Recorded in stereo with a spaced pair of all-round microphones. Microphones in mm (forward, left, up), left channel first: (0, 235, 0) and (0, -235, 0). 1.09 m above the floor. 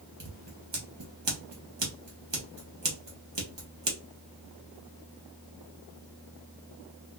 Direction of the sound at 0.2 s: 65° right (ahead or behind).